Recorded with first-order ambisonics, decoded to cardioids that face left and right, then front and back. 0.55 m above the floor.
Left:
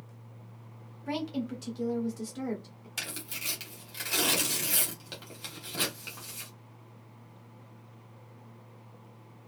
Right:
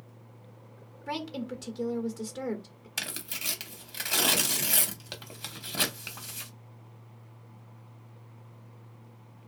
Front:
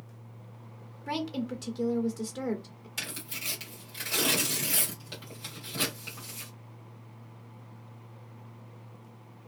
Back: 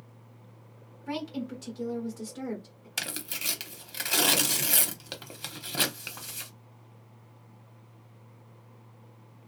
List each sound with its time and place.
1.1 s a woman speaking: 15° right, 1.1 m
3.0 s tearing paper: 155° right, 0.9 m